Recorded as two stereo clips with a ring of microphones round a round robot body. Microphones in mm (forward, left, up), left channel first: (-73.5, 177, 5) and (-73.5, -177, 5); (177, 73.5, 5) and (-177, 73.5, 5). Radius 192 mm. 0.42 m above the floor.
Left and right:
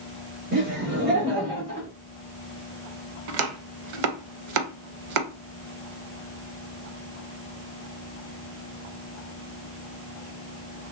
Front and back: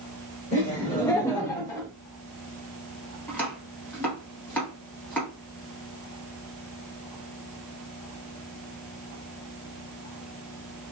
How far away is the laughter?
About 1.5 m.